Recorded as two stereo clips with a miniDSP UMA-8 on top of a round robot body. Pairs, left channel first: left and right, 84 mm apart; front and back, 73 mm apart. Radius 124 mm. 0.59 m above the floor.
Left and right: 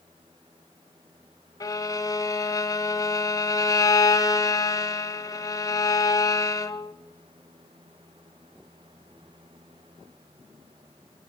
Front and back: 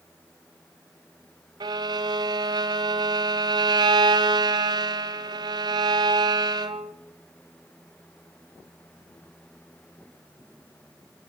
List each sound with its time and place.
1.6 s a violin: 145° left, 1.3 m